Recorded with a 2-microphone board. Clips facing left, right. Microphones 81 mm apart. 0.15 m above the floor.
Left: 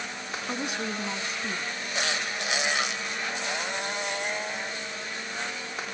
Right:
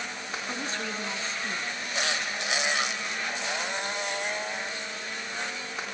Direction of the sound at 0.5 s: 15° left (ahead or behind).